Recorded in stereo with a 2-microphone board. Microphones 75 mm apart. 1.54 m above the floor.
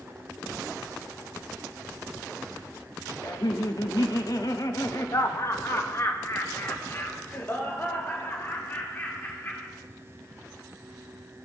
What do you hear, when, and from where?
3.2 s laughter: 55° left (ahead or behind), 0.9 m; by 9.7 s 25° left (ahead or behind), 4 m